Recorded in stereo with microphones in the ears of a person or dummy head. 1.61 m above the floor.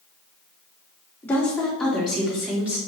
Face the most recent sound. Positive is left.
turn(degrees=-10)  # may be behind; listen again after turning